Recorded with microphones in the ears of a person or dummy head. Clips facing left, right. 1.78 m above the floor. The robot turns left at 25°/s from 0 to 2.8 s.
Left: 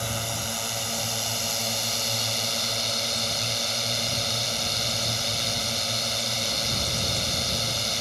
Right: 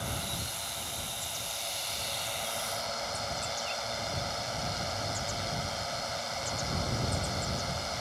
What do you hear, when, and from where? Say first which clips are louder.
0.0 s a drone: left 6 dB; 120° left; by 8.0 s 50° left